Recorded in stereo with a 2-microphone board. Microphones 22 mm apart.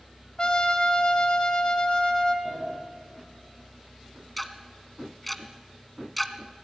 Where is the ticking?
Centre (ahead or behind), 1.6 m.